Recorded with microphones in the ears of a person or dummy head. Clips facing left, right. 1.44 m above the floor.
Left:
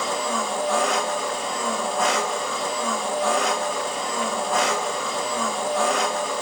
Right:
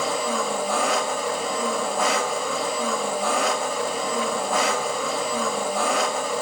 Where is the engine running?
5° right (ahead or behind), 0.8 m.